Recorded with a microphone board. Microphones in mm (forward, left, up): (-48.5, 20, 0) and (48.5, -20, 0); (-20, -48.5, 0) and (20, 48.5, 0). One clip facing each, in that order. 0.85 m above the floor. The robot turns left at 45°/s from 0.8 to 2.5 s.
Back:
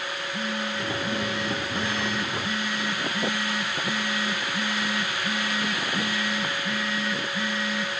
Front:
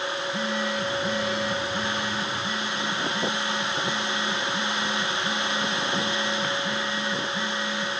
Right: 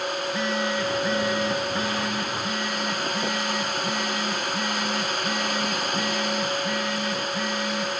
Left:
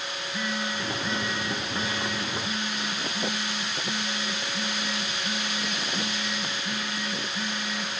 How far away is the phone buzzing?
About 8 m.